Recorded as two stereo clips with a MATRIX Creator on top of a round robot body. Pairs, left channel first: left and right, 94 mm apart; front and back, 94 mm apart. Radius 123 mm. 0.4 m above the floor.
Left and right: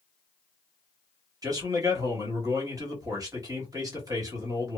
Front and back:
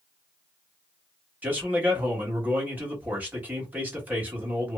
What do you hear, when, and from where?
1.4 s a man speaking: 115° right, 1.5 m